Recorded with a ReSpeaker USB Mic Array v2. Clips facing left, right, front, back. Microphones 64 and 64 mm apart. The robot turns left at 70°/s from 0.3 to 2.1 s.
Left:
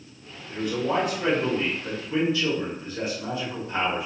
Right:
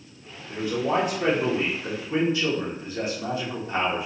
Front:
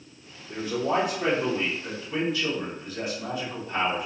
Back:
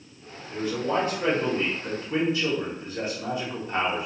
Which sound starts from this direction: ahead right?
A man speaking, at 0.5 s.